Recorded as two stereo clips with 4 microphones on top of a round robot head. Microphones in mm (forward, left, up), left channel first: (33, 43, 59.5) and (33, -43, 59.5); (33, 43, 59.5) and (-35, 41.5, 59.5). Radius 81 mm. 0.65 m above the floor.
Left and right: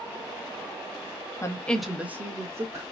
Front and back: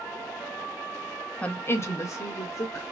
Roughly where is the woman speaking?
Ahead left.